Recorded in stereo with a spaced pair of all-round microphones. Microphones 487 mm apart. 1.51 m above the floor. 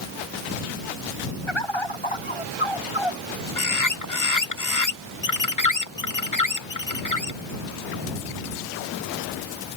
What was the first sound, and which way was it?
A bird, 70° left (ahead or behind).